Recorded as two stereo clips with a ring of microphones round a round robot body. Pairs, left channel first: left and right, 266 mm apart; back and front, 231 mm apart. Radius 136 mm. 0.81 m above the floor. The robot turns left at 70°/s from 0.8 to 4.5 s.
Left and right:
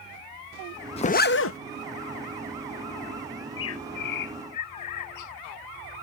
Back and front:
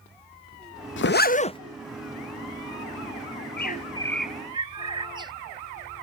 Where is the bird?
150° left; by 5.3 s 70° left.